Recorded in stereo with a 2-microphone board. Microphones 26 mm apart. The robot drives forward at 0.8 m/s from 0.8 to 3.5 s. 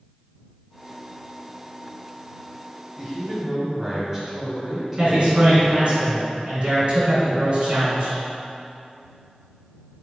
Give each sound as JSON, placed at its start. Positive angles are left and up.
{"t": 3.0, "sound": "a man speaking", "side_deg": -25, "distance_m": 1.2}
{"t": 5.0, "sound": "a man speaking", "side_deg": -50, "distance_m": 1.7}